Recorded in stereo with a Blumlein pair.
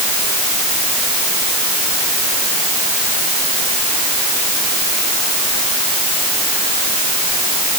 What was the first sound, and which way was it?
Only background noise.